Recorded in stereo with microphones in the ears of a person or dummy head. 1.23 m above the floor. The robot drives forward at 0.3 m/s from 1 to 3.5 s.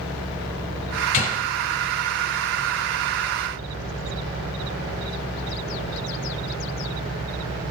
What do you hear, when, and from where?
1.1 s a gunshot: 40° left (ahead or behind), 1.4 m; by 1.4 s 45° left (ahead or behind), 1.4 m